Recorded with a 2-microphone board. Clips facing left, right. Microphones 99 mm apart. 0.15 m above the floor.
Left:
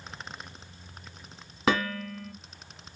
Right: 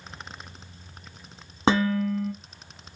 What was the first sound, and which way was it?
Dishes clattering, 30° right (ahead or behind).